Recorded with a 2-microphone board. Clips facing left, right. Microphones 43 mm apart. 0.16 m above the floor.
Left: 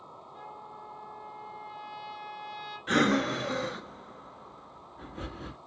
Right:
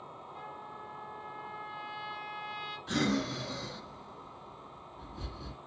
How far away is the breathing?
About 0.7 m.